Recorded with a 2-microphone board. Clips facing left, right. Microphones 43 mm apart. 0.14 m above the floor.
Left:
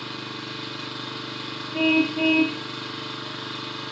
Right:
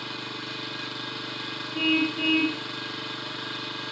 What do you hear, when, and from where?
0.0 s an engine running: 5° left (ahead or behind), 3 m
1.7 s a car horn: 65° left (ahead or behind), 4 m